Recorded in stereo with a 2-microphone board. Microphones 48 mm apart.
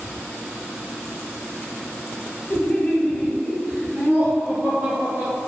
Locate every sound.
2.5 s laughter: 30° left (ahead or behind), 1.5 m; by 5.4 s 45° right (ahead or behind), 2.5 m